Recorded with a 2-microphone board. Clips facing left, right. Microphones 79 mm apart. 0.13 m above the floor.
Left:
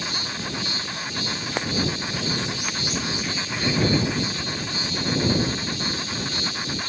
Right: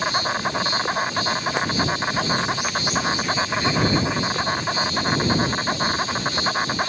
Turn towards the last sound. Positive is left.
turn(degrees=-50)  # may be behind; listen again after turning